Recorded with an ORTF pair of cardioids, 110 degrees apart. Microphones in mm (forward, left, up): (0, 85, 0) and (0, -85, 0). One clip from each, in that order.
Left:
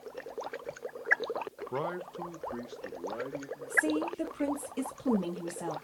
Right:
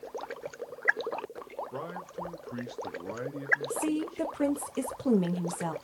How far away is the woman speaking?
About 0.7 m.